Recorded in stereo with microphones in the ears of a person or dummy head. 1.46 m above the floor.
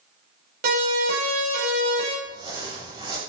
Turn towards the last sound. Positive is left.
turn(degrees=-25)  # may be behind; listen again after turning